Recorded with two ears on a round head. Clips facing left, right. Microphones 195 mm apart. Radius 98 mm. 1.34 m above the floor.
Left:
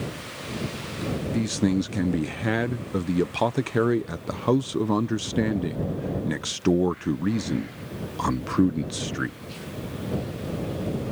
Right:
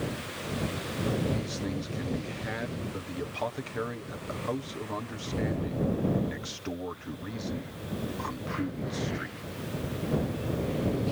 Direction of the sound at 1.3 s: 65° left (ahead or behind).